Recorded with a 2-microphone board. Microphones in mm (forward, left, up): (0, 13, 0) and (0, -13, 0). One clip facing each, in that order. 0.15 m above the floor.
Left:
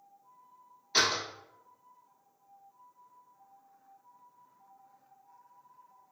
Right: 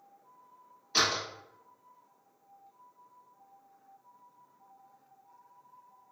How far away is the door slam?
About 1.5 m.